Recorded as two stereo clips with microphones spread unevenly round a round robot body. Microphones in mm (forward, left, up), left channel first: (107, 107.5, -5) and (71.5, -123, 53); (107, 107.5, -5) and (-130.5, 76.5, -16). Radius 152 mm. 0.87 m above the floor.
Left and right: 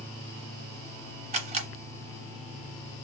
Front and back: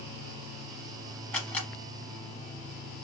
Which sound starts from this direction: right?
A camera shutter, at 1.3 s.